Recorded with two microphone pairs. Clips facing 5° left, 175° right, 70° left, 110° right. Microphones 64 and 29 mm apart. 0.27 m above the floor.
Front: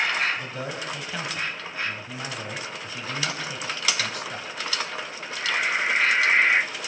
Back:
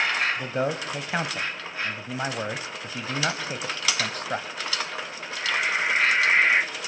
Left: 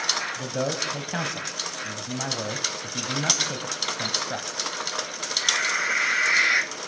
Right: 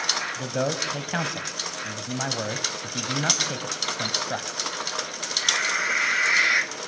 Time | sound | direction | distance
0.4 | a man speaking | 175° right | 1.8 m